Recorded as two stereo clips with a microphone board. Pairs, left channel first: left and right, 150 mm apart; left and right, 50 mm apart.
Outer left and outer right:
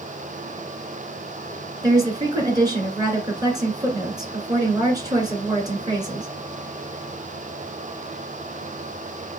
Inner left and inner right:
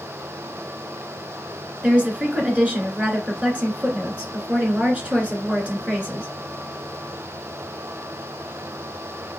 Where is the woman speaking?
25° right (ahead or behind), 2 m.